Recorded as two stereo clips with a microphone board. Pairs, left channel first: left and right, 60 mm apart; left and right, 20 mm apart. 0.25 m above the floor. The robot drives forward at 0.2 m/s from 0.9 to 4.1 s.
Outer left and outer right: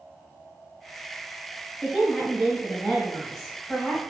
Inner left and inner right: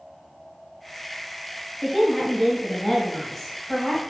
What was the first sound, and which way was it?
A woman speaking, centre (ahead or behind).